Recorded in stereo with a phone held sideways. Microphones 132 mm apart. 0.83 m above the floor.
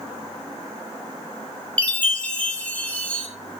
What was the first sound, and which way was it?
A chime, 10° left (ahead or behind).